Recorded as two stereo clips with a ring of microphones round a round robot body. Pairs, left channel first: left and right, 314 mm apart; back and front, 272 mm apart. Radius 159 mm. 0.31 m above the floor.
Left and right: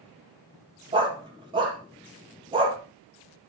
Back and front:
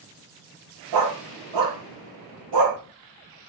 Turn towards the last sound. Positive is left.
turn(degrees=-15)